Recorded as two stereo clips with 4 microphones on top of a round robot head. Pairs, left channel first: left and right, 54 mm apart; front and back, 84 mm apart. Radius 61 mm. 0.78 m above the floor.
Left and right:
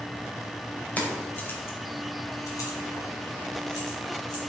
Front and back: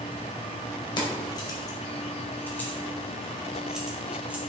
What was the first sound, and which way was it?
Keys jangling, 30° left.